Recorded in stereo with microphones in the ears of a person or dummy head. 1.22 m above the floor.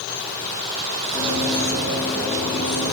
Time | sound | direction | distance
1.1 | running footsteps | 10° left (ahead or behind) | 8.5 m